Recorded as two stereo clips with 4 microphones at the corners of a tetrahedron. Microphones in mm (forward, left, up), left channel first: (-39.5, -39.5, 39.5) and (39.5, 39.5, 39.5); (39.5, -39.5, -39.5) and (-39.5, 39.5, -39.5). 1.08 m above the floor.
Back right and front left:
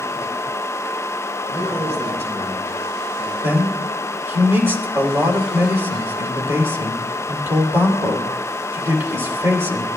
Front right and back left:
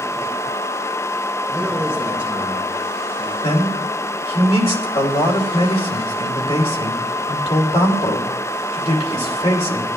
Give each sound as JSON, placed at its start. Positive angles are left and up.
{"t": 1.5, "sound": "a man speaking", "azimuth_deg": 50, "distance_m": 6.0}
{"t": 3.4, "sound": "a man speaking", "azimuth_deg": -25, "distance_m": 3.0}